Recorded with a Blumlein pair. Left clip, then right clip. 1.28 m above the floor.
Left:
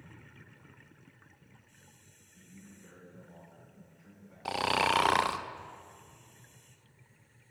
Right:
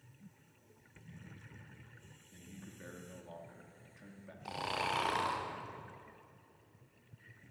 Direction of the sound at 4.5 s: 25° left.